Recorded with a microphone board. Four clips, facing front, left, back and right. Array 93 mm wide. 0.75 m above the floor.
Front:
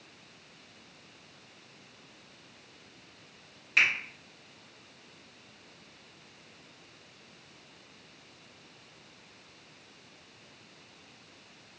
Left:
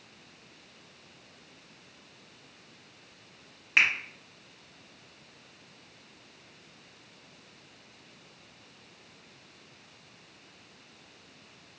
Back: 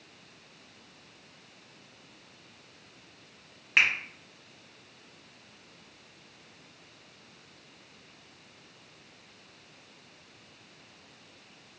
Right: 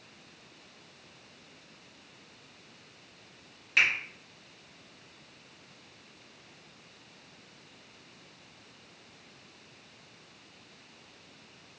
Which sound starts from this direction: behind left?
A finger snap, at 3.8 s.